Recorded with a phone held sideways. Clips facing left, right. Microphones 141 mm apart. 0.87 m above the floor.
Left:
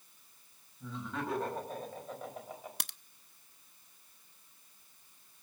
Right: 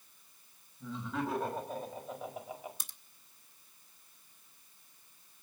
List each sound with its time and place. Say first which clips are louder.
0.8 s laughter: right 3 dB; centre (ahead or behind), 6 m; by 2.7 s 10° right (ahead or behind), 5 m
2.8 s a crack: left 7 dB; 75° left (ahead or behind), 0.7 m